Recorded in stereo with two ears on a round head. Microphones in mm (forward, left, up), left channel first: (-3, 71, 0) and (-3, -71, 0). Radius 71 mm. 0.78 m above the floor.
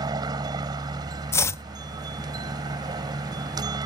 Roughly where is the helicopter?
Right.